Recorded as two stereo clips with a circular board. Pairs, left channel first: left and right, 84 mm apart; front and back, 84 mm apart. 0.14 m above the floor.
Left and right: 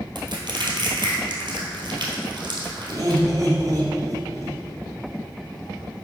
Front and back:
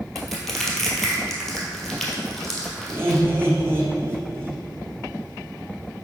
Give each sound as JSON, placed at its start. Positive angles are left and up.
{"t": 0.1, "sound": "crushing", "azimuth_deg": -90, "distance_m": 1.6}
{"t": 2.9, "sound": "laughter", "azimuth_deg": -125, "distance_m": 1.8}